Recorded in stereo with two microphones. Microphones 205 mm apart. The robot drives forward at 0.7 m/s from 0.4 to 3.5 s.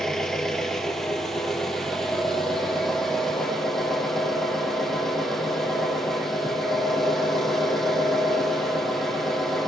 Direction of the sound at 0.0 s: Centre (ahead or behind).